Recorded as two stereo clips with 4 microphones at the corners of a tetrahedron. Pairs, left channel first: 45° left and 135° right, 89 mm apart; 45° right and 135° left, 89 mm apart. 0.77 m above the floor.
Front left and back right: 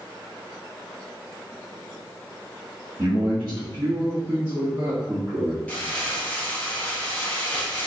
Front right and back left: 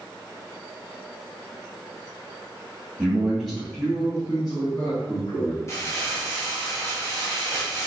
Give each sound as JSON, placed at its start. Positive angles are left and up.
{"t": 3.0, "sound": "a man speaking", "azimuth_deg": -145, "distance_m": 1.3}
{"t": 5.7, "sound": "crumpling", "azimuth_deg": -20, "distance_m": 1.0}